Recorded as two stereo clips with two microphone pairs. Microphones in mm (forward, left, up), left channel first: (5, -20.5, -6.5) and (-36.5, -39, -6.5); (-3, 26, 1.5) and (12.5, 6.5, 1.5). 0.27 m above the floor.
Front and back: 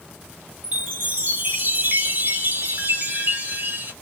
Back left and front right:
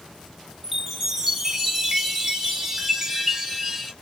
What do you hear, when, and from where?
0.6 s a chime: 135° right, 2.5 m